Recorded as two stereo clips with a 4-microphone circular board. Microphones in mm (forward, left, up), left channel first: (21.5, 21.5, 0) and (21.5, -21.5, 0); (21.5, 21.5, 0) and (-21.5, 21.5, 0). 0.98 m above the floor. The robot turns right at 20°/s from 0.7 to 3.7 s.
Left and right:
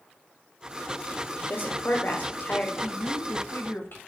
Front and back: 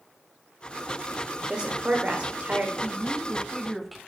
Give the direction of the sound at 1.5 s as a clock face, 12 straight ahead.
8 o'clock.